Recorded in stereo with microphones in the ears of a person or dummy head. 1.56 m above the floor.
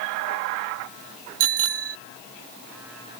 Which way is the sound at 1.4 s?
75° right (ahead or behind).